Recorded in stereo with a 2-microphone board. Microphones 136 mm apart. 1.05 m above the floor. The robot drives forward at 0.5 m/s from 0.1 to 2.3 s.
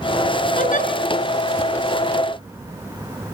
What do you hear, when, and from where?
0.6 s a giggle: 75° left (ahead or behind), 5.5 m